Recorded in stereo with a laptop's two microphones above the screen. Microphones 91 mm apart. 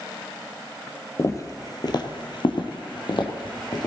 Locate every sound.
1.2 s footsteps: 35° left (ahead or behind), 1.9 m; by 3.9 s 50° left (ahead or behind), 2.5 m